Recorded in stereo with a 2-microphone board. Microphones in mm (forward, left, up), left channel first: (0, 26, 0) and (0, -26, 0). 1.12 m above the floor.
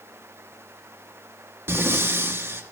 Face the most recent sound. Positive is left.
turn(degrees=-50)  # may be behind; listen again after turning